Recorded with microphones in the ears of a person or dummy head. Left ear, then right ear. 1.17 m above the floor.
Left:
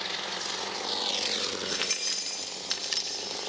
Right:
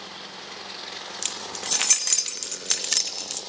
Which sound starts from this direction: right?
Keys jangling, at 1.2 s.